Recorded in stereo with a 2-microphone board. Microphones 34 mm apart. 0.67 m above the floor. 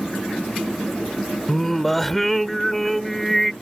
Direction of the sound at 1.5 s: 5° left (ahead or behind).